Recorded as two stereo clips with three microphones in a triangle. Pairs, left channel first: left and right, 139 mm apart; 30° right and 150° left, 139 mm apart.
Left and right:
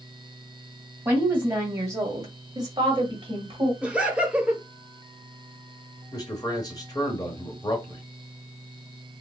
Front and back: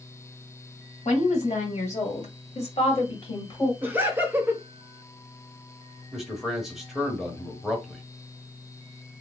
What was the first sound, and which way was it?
A woman speaking, 10° right.